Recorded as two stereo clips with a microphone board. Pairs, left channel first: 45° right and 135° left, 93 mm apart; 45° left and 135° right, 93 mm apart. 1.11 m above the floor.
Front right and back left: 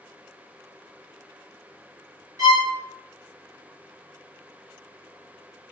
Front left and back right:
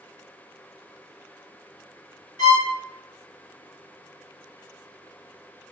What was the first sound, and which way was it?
A violin, 90° left.